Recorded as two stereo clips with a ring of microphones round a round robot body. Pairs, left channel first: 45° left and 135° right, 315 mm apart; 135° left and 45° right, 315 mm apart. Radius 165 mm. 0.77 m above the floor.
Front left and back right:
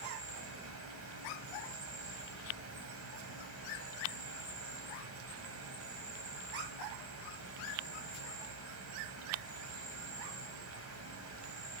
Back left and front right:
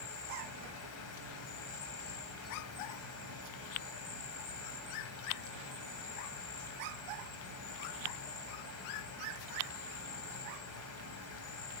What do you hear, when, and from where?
0.0 s an insect: straight behind, 3 m